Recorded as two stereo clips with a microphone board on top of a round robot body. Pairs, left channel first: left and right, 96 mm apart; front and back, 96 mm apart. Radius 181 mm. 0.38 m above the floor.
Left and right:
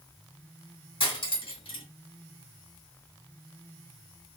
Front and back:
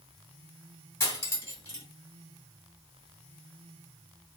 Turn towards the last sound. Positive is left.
turn(degrees=60)